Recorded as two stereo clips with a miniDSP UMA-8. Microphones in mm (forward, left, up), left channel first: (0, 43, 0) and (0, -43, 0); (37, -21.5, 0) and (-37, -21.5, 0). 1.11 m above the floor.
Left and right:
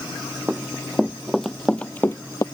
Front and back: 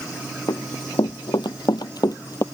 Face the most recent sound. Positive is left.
turn(degrees=45)